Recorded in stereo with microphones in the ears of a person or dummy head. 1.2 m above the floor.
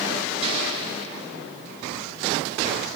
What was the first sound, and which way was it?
An explosion, 45° right (ahead or behind).